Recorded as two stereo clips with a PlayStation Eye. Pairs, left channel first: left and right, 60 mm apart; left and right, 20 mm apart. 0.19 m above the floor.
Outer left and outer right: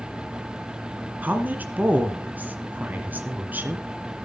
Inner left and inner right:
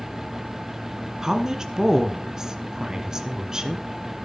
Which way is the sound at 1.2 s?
30° right (ahead or behind).